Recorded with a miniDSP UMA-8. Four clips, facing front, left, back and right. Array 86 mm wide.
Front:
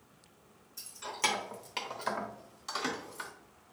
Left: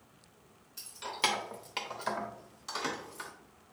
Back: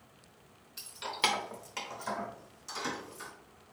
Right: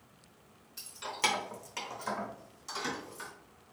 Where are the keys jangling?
175° right, 0.7 m; by 3.3 s 30° left, 1.3 m.